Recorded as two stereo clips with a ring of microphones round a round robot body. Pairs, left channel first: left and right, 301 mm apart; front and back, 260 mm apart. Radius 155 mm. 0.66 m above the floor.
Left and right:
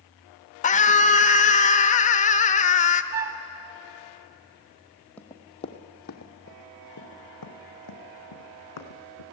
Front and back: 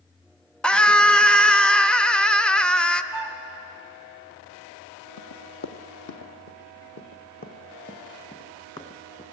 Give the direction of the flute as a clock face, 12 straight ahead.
5 o'clock.